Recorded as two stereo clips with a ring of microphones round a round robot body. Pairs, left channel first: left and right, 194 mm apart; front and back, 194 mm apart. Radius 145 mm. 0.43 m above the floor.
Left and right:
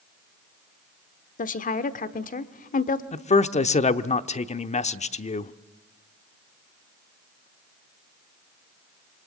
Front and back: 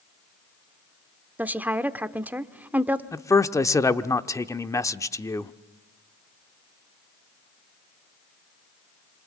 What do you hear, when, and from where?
1.4 s a woman speaking: 105° left, 1.0 m
3.1 s a man speaking: 65° left, 0.9 m